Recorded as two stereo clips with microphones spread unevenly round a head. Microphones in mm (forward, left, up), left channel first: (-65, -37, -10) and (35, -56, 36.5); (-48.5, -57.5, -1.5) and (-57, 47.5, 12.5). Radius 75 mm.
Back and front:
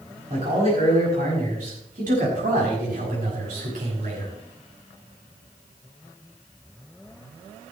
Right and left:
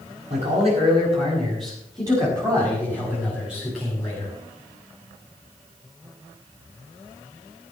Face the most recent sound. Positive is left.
turn(degrees=0)